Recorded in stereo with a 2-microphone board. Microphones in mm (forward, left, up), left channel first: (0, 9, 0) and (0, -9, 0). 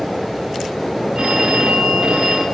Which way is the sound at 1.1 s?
75° right (ahead or behind).